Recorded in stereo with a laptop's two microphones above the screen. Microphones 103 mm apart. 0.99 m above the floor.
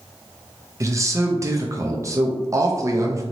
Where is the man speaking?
30° right (ahead or behind), 0.6 m.